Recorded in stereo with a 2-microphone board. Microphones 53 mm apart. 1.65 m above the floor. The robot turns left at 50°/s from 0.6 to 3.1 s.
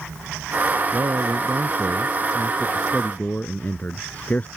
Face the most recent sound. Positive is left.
turn(degrees=150)